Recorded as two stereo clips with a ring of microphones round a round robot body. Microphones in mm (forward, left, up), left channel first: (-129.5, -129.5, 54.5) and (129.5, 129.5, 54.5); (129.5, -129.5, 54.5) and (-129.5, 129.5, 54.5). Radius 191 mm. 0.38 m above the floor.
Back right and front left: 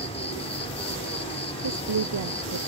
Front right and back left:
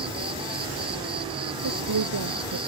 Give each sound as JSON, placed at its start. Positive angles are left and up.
{"t": 0.0, "sound": "an insect", "azimuth_deg": -175}
{"t": 1.6, "sound": "a woman speaking", "azimuth_deg": 90}